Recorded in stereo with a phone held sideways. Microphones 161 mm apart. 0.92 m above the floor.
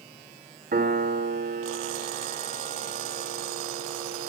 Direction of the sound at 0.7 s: 80° right.